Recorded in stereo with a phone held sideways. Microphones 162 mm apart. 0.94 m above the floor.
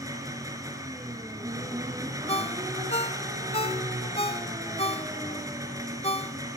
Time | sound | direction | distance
0.0 | an engine running | 20° right (ahead or behind) | 5 m
2.3 | a ringtone | 40° left (ahead or behind) | 1.0 m